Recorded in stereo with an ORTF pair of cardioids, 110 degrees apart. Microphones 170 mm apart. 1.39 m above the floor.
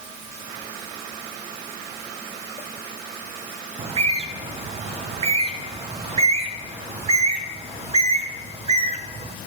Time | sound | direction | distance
3.8 | a bird | 35° right | 1.1 m